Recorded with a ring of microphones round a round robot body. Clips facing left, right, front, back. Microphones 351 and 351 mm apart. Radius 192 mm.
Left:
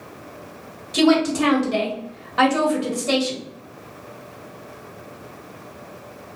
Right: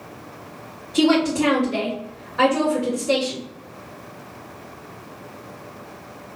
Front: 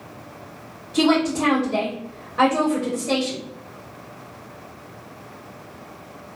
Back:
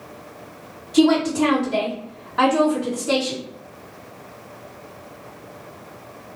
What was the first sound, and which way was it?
A woman speaking, 100° left.